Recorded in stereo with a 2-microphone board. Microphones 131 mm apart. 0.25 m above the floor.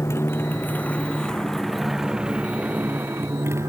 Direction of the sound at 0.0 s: 20° left (ahead or behind).